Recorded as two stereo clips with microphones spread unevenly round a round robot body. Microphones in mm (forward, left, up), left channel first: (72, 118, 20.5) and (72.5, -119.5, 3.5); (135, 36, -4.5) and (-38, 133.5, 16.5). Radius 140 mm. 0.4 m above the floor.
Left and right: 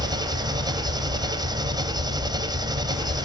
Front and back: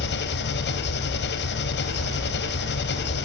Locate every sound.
0.0 s an engine running: 20° right, 2 m